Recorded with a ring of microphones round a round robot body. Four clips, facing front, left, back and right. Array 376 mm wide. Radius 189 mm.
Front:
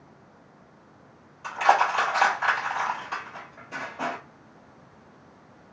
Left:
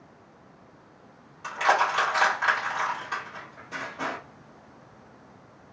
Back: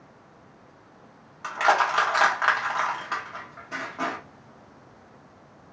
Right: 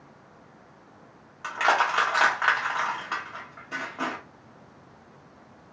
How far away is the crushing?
About 1.4 m.